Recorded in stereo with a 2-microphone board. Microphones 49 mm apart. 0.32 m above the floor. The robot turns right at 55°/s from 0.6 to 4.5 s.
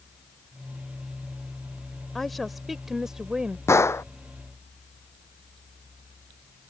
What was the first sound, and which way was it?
A woman speaking, 5° left (ahead or behind).